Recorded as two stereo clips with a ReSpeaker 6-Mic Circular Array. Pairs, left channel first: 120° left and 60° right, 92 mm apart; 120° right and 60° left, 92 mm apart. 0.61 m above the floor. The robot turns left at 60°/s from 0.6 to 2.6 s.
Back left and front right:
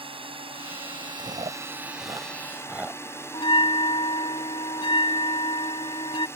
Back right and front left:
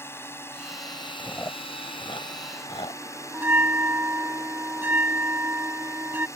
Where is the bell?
125° left.